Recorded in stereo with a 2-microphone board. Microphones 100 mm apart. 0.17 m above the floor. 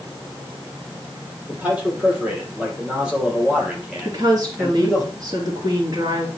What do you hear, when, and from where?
1.5 s a man speaking: 15° right (ahead or behind), 5 m; by 5.0 s centre (ahead or behind), 3.5 m
4.0 s a woman speaking: 45° right (ahead or behind), 3 m